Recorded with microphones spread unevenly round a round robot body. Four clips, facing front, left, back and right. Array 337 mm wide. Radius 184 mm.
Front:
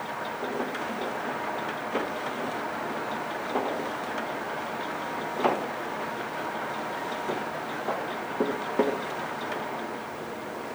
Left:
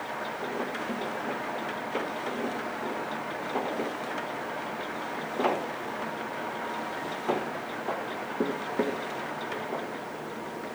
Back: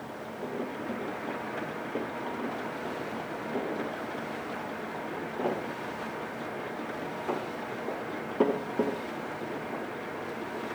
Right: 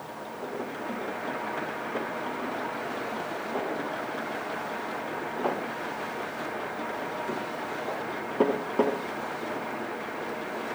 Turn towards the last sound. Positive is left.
No sound to turn to.